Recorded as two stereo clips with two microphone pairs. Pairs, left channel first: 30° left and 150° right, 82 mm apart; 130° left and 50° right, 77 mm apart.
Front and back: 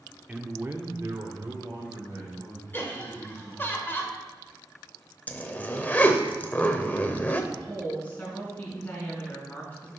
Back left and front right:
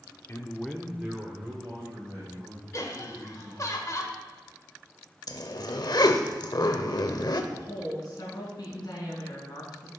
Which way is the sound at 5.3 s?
100° left.